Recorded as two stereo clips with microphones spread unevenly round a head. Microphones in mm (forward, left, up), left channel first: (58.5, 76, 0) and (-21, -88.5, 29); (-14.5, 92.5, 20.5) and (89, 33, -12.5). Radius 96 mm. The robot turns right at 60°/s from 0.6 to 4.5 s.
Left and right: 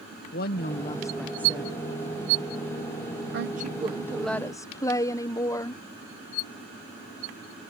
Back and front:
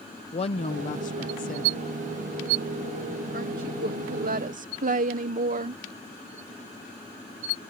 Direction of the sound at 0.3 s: 115° left.